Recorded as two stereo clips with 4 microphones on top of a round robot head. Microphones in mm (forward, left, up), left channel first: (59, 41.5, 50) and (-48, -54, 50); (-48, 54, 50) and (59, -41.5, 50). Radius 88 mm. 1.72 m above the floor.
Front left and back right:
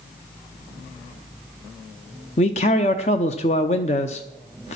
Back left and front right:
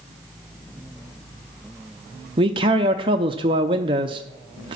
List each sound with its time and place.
2.4 s a man speaking: 5° left, 0.6 m